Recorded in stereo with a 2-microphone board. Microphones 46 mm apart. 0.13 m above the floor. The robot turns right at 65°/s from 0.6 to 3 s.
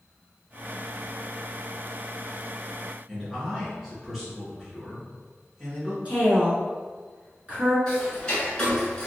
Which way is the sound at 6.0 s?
35° right (ahead or behind).